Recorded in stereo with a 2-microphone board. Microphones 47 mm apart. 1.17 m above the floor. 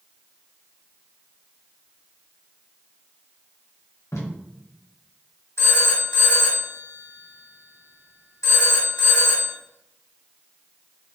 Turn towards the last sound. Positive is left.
turn(degrees=75)  # may be behind; listen again after turning